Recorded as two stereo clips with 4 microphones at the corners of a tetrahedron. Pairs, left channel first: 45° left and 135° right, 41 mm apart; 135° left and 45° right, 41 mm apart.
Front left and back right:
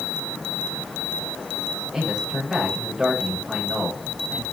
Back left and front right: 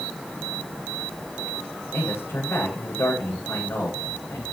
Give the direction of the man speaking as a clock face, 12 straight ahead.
7 o'clock.